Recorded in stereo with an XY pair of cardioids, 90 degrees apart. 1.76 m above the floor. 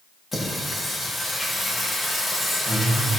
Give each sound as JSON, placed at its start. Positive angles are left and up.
{"t": 0.3, "sound": "singing", "azimuth_deg": 25, "distance_m": 3.0}